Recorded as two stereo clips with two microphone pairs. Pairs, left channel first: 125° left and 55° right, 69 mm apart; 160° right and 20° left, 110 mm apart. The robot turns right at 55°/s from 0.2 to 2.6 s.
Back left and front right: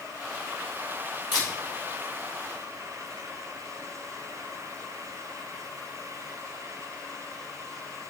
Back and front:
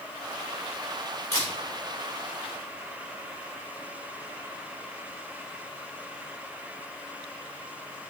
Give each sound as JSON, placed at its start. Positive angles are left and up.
{"t": 1.3, "sound": "a camera shutter", "azimuth_deg": 140, "distance_m": 4.0}